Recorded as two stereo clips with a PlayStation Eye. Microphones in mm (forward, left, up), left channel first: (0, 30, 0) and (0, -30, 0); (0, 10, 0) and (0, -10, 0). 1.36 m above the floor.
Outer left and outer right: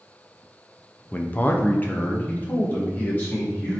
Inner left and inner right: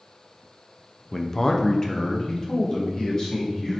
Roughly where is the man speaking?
Left.